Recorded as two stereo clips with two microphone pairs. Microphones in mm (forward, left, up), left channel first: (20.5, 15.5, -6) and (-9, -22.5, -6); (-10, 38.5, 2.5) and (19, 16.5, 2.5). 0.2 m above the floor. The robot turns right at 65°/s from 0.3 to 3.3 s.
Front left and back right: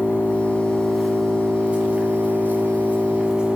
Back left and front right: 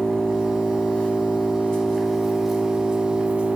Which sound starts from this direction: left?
An engine running, at 0.0 s.